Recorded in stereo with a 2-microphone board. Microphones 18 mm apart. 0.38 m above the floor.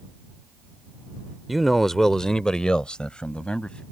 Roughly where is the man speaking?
Centre.